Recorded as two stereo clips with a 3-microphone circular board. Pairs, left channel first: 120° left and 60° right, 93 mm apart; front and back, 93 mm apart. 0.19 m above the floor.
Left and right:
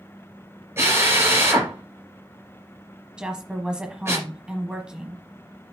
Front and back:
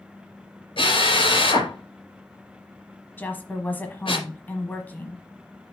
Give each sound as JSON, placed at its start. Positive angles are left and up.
{"t": 0.8, "sound": "a drill", "azimuth_deg": 0, "distance_m": 3.0}
{"t": 3.2, "sound": "a woman speaking", "azimuth_deg": 0, "distance_m": 1.0}